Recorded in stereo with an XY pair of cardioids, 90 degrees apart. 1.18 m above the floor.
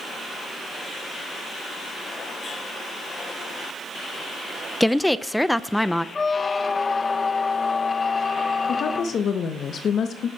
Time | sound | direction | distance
4.8 | a woman speaking | 5° left | 0.5 m
6.2 | a squeak | 35° left | 0.6 m
8.7 | a woman speaking | 65° left | 1.1 m